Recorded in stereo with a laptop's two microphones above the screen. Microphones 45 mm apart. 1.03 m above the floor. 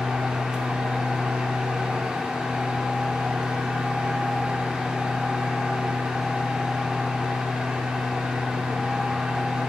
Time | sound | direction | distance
0.0 | a fan | 20° right (ahead or behind) | 0.8 m